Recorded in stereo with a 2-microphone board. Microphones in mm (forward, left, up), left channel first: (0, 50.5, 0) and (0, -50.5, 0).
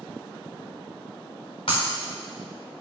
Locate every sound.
1.7 s breaking glass: 60° left (ahead or behind), 5 m